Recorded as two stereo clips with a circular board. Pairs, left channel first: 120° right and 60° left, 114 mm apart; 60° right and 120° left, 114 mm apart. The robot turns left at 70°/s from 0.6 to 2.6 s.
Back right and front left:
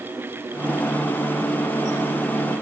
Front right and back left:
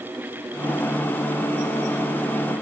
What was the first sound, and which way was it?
Only background noise.